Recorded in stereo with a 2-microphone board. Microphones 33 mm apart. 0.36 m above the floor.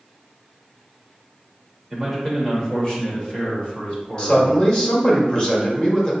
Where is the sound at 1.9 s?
5° left (ahead or behind), 1.1 m; by 4.7 s 50° left (ahead or behind), 2 m.